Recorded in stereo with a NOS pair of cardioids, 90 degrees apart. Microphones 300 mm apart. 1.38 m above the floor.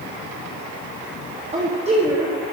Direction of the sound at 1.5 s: 20° right.